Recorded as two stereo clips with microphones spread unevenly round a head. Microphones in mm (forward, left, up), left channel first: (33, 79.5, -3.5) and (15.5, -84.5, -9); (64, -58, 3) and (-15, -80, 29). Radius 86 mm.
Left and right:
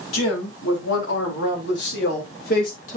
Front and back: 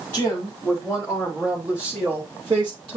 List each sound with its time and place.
0.1 s a woman speaking: 95° left, 5 m; by 3.0 s 135° left, 3.5 m